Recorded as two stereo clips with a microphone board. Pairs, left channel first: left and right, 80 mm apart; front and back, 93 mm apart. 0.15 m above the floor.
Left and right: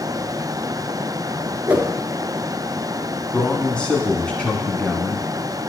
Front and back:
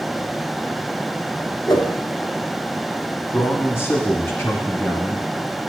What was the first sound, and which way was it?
A whoosh, 20° right.